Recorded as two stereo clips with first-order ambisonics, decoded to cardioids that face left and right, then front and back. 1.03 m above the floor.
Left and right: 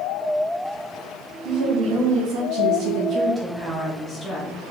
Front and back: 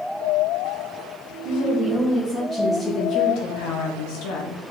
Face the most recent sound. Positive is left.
turn(degrees=15)